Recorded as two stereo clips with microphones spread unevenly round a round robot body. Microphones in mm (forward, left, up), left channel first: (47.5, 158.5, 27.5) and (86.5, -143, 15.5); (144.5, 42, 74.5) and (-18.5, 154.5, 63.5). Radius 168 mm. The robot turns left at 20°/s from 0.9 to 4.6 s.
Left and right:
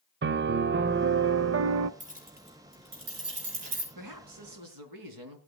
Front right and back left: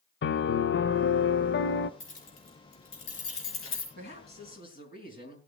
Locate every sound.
0.2 s a piano: 35° right, 0.7 m; by 1.9 s 55° right, 0.7 m
2.0 s keys jangling: 15° right, 5.5 m; by 3.9 s 55° right, 5.5 m
4.0 s a woman speaking: 75° right, 4 m; by 5.4 s 90° right, 4 m